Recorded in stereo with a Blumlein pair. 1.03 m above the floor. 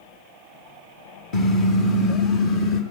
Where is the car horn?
35° left, 3.5 m; by 2.8 s 45° left, 5.5 m.